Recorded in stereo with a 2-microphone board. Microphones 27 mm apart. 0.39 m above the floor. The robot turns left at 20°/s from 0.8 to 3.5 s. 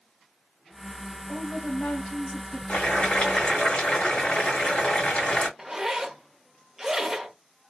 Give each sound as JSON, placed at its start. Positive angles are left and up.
{"t": 1.3, "sound": "a woman speaking", "side_deg": 60, "distance_m": 2.0}
{"t": 2.7, "sound": "boiling", "side_deg": 55, "distance_m": 2.0}
{"t": 5.6, "sound": "a zipper", "side_deg": -15, "distance_m": 0.6}